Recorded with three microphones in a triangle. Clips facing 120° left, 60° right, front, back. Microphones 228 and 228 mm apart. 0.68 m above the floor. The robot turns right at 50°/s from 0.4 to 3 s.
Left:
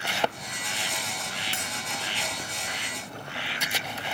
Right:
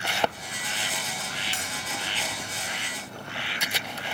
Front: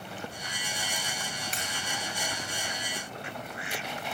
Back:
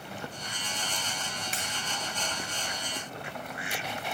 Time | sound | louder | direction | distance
1.5 | breaking glass | left 1 dB, even | 90° left | 2 m